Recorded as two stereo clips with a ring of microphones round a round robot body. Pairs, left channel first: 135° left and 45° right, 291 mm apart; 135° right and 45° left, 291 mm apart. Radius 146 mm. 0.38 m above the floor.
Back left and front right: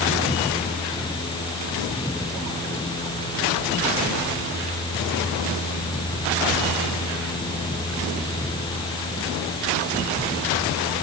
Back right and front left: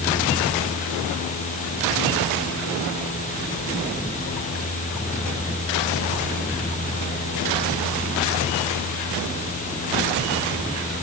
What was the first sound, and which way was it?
Only background noise.